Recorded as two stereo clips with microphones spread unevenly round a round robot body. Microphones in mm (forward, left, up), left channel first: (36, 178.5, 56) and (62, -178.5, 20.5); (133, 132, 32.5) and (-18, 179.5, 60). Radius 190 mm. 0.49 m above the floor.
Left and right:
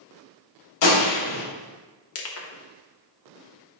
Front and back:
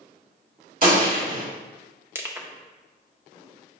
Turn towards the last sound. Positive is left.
turn(degrees=80)